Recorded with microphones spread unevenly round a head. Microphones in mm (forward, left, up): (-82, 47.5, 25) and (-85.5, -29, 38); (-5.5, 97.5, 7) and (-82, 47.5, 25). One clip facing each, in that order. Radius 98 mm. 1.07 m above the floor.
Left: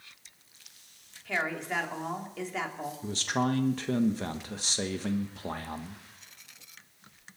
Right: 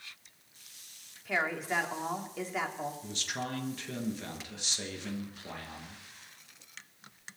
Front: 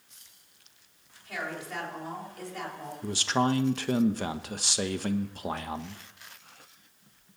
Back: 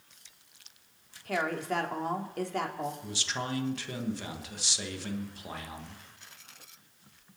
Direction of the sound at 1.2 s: 175° right.